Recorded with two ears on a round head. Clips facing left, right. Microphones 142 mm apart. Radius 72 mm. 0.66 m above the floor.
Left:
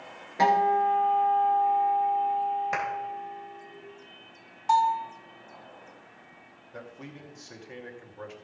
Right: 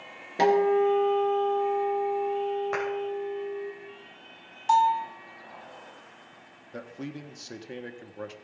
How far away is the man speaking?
About 0.9 m.